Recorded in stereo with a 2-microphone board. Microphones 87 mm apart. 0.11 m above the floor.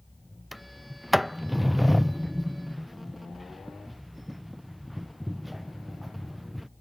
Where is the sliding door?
Centre (ahead or behind).